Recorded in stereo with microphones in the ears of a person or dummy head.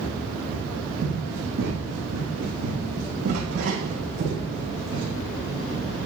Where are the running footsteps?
70° right (ahead or behind), 4.5 m; by 5.1 s 50° right (ahead or behind), 4 m.